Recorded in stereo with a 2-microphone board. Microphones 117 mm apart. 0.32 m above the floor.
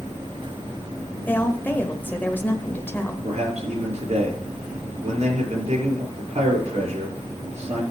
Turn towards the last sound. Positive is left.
turn(degrees=-65)  # may be behind; listen again after turning